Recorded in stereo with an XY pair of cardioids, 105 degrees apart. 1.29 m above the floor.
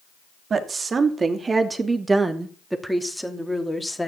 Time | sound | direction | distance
0.5 | a woman speaking | 50° right | 3 m